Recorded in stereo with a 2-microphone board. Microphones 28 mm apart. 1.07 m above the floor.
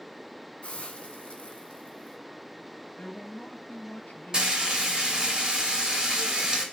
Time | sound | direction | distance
0.6 | a hiss | 40° left (ahead or behind) | 2 m
3.0 | a man speaking | 70° left (ahead or behind) | 1.4 m
4.3 | frying | 25° right (ahead or behind) | 2.5 m